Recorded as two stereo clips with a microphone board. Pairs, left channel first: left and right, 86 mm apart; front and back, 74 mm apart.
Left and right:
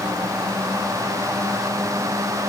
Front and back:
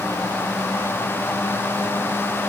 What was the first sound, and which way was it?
Only background noise.